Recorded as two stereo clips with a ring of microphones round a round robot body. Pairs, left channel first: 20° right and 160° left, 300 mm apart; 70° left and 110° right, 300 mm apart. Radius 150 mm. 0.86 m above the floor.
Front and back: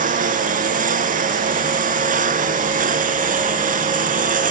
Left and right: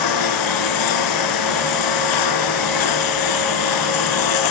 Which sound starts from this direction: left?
A lawn mower, at 0.0 s.